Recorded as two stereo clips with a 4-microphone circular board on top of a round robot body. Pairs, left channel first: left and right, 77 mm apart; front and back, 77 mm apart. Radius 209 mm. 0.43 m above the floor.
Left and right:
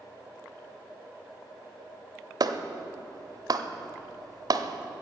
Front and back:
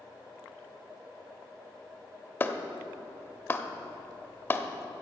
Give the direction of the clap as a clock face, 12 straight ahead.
2 o'clock.